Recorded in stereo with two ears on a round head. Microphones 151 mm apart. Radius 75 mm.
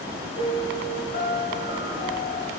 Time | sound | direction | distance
0.3 | a piano | 40° left (ahead or behind) | 5.5 m